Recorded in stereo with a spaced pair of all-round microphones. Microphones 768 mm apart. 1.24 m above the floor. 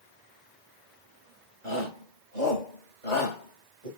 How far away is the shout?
About 7 m.